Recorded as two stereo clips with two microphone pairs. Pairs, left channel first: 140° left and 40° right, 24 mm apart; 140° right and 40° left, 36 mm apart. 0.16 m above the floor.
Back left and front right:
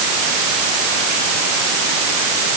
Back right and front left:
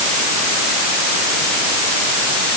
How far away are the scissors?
I don't hear scissors.